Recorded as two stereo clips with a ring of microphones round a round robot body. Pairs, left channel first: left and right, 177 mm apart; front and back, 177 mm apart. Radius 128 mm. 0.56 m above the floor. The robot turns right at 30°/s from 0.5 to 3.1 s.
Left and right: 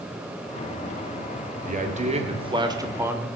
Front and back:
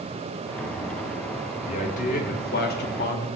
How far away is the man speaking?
About 2.5 m.